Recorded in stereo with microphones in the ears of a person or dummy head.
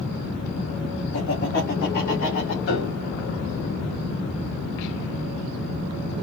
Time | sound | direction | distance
1.1 | laughter | 70° left (ahead or behind) | 1.9 m
2.7 | a piano | 70° left (ahead or behind) | 3 m